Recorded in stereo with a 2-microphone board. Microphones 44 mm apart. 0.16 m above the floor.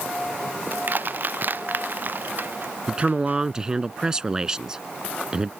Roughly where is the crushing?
Right.